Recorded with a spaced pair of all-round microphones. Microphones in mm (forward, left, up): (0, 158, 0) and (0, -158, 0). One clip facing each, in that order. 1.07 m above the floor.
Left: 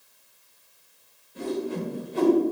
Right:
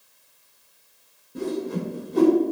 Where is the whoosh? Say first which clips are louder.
Right 2 dB; 55° right (ahead or behind), 2 m.